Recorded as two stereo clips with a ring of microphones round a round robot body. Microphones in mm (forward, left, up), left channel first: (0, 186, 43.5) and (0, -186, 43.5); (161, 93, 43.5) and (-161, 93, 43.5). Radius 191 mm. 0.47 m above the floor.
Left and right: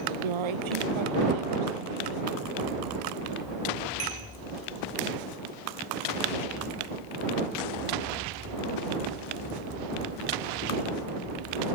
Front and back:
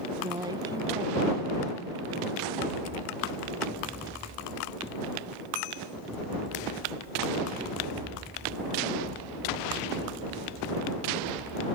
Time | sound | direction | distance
0.2 | a woman speaking | 100° right | ?